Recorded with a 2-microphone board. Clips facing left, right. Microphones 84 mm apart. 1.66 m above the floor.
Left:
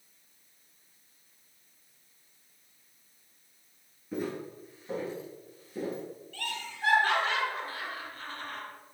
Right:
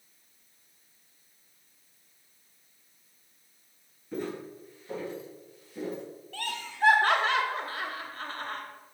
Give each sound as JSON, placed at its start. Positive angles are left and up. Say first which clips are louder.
{"t": 4.1, "sound": "footsteps", "louder": "even", "side_deg": 5, "distance_m": 1.7}
{"t": 6.3, "sound": "laughter", "louder": "right 4 dB", "side_deg": -75, "distance_m": 1.1}